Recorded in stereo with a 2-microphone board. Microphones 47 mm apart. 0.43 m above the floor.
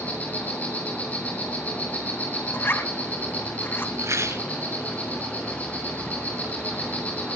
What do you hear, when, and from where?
0.0 s an insect: 30° left (ahead or behind), 8 m
2.5 s a zipper: 50° left (ahead or behind), 2 m
4.0 s a rattle: 80° right, 6 m